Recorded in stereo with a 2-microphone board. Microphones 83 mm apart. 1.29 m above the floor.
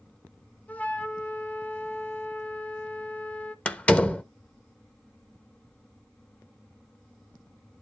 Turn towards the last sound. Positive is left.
turn(degrees=15)  # may be behind; listen again after turning